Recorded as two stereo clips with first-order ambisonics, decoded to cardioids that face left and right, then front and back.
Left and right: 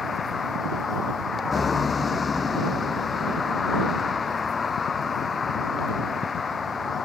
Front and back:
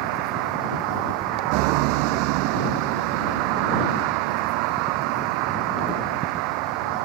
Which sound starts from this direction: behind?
A vehicle, at 0.0 s.